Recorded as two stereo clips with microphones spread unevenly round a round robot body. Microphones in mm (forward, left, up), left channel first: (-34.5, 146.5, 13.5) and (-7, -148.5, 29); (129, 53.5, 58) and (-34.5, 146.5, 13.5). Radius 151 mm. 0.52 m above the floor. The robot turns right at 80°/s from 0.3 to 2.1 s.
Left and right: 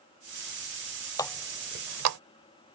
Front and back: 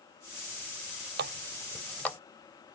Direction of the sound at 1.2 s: 170° left.